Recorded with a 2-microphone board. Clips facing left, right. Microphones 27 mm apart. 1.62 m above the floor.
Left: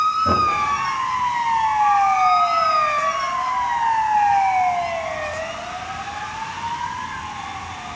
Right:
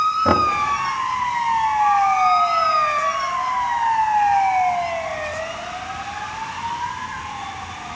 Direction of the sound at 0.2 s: 60° right (ahead or behind).